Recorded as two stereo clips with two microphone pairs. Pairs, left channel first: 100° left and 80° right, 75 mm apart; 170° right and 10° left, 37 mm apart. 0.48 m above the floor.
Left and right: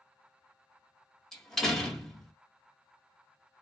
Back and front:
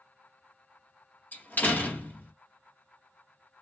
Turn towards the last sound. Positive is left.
turn(degrees=-175)